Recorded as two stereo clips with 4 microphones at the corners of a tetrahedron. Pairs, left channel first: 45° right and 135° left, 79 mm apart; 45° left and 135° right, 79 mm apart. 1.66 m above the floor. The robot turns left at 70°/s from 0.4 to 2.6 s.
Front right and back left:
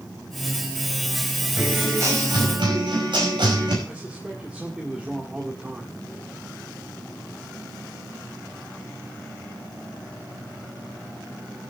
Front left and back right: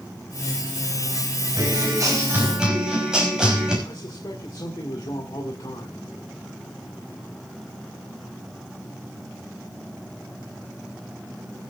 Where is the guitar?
140° right, 5.5 m; by 3.8 s 145° left, 5.5 m.